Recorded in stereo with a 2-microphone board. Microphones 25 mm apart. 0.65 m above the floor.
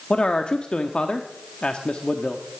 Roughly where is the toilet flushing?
No toilet flushing in this recording.